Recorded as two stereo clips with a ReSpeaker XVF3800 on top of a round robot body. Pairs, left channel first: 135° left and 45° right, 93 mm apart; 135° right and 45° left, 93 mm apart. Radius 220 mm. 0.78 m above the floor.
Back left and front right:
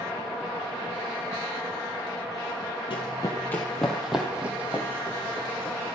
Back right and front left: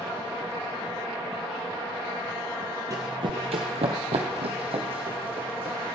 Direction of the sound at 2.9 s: 100° left.